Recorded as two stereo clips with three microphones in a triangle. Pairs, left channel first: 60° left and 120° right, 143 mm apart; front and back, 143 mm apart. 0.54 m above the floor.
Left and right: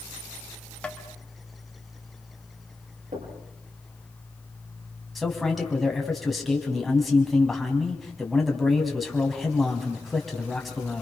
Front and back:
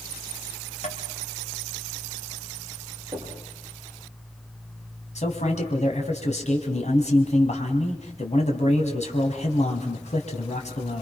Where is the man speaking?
30° right, 4 m.